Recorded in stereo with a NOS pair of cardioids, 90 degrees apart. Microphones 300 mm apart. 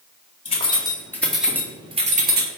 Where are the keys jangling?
20° left, 1.5 m; by 2.5 s 40° right, 1.1 m.